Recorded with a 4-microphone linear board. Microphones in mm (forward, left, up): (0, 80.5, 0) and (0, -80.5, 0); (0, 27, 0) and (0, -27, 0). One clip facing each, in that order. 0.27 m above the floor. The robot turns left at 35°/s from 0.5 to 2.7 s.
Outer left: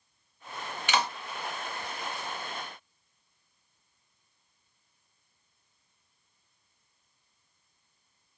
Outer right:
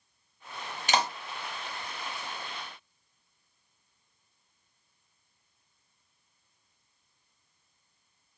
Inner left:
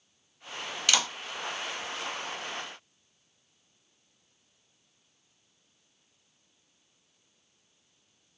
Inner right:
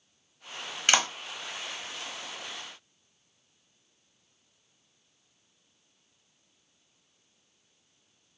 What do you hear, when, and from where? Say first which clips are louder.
0.9 s a clap: outer right 1 dB, inner right 3 dB; 40° right (ahead or behind), 0.9 m; by 1.1 s 35° right (ahead or behind), 0.9 m